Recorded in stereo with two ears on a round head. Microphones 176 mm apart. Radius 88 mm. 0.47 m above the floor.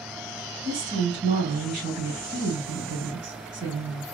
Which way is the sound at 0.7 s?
60° right (ahead or behind).